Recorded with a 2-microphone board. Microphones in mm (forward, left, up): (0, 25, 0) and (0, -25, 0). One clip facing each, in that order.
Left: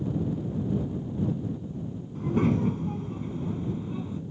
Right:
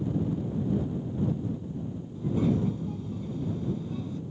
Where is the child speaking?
55° left (ahead or behind); by 4.2 s 20° left (ahead or behind).